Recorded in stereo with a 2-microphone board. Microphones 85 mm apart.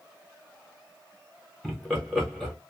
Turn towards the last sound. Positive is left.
turn(degrees=5)  # may be behind; listen again after turning